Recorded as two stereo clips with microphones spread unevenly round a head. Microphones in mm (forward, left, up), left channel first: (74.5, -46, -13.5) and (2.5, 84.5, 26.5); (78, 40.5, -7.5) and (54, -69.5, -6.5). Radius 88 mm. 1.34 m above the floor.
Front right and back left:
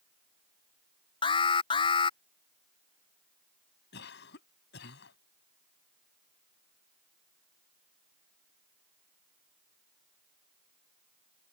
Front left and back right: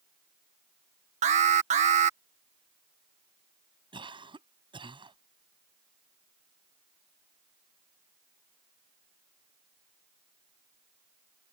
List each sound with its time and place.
1.2 s an alarm: 110° right
3.9 s a cough: 60° right